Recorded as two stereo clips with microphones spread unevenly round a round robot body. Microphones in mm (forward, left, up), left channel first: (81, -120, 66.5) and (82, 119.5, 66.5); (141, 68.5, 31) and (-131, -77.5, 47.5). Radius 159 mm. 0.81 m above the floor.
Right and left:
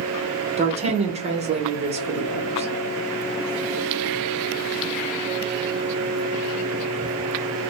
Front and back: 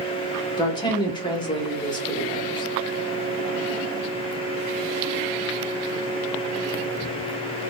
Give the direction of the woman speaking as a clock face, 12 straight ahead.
9 o'clock.